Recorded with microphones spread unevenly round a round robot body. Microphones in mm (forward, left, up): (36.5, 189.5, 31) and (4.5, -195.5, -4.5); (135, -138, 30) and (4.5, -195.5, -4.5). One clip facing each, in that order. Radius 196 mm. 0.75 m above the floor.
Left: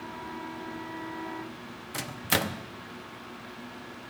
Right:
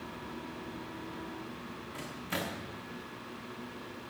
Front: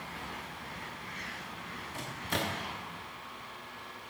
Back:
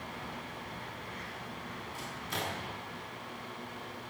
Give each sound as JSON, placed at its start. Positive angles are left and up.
{"t": 1.9, "sound": "a microwave", "azimuth_deg": 80, "distance_m": 0.8}